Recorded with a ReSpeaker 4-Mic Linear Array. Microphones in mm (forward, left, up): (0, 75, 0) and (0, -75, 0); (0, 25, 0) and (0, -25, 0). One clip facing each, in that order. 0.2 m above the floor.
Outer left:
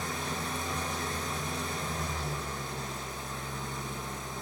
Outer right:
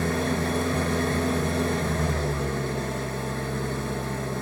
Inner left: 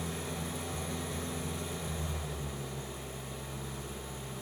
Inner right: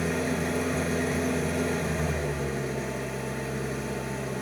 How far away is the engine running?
About 1.0 m.